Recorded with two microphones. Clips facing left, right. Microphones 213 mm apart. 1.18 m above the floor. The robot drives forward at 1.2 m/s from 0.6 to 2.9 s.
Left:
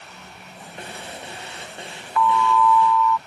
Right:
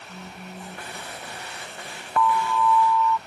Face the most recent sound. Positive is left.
turn(degrees=-20)  # may be behind; listen again after turning